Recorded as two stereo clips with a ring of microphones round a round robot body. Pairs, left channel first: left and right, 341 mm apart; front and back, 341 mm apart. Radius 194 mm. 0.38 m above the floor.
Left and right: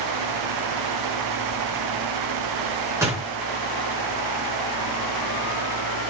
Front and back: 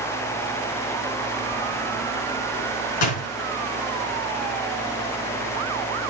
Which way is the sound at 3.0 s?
5° right.